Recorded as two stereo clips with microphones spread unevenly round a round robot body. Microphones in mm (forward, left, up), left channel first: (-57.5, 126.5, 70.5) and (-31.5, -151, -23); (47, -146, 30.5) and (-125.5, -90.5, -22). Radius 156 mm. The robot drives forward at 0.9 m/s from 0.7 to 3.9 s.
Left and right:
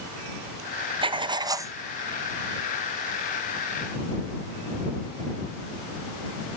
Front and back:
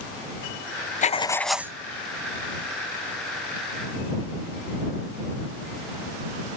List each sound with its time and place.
1.0 s writing: 65° right, 0.7 m; by 1.7 s 145° right, 0.8 m